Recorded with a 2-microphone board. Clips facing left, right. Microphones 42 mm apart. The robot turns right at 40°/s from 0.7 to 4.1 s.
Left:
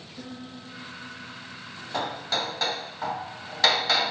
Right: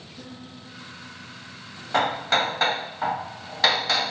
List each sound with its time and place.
0.2 s a piano: 95° left, 5 m; by 1.8 s 140° left, 5 m
1.9 s hammering: 80° right, 0.8 m; by 4.1 s 5° left, 0.8 m